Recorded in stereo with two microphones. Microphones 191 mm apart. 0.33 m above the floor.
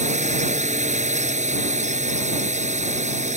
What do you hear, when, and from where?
0.0 s a drone: 40° right (ahead or behind)